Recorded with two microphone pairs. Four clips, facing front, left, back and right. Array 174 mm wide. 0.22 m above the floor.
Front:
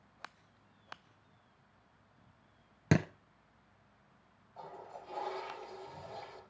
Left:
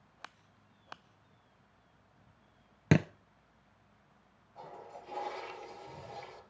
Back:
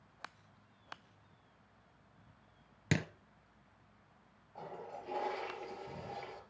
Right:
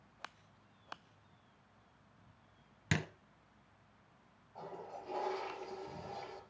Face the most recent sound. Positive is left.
turn(degrees=-160)